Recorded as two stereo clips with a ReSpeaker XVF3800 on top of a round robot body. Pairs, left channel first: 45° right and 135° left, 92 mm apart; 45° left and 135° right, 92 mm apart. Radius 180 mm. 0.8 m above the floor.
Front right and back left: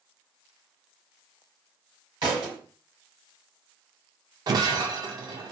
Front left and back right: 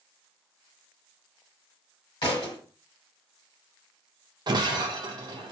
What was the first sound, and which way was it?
A thud, 85° left.